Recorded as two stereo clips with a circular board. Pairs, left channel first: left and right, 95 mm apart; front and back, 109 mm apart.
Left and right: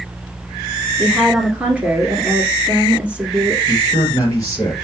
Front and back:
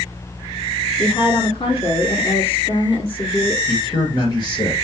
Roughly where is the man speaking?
Ahead left.